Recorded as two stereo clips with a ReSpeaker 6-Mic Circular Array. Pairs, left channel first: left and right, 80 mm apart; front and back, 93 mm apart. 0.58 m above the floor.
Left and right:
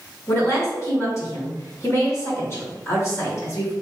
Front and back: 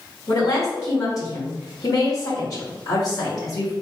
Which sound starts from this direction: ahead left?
A woman speaking, at 0.3 s.